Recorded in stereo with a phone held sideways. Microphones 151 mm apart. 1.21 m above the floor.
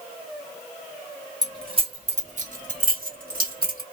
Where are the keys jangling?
25° right (ahead or behind), 1.2 m; by 3.8 s 75° right (ahead or behind), 1.5 m.